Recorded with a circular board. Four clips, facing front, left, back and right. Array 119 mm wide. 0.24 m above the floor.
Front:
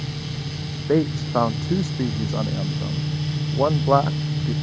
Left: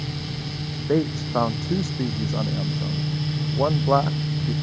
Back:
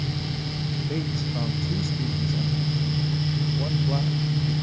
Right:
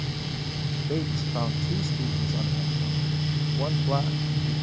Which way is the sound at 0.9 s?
25° left.